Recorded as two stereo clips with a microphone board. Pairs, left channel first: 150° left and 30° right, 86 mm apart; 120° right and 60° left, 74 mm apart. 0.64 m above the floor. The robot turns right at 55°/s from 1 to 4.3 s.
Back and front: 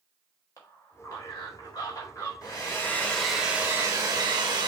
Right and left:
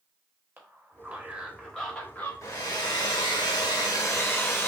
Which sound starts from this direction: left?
A man speaking, at 0.6 s.